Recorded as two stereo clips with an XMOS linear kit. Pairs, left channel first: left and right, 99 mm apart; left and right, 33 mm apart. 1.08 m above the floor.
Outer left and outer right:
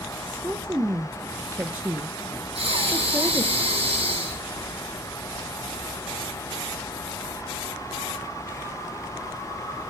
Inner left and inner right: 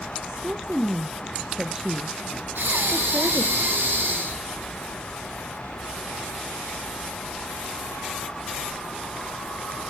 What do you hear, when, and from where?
0.2 s a woman speaking: 20° right (ahead or behind), 0.7 m
2.5 s breathing: 80° right, 5.5 m